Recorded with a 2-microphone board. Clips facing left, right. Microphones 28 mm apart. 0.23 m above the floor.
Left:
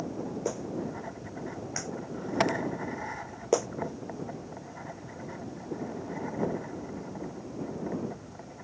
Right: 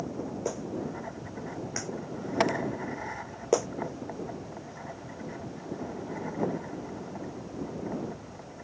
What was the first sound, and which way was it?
A clap, centre (ahead or behind).